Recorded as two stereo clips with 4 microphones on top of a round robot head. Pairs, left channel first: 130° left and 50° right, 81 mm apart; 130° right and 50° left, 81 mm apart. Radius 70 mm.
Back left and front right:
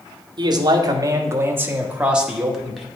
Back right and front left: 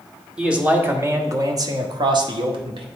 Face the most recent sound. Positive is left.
turn(degrees=40)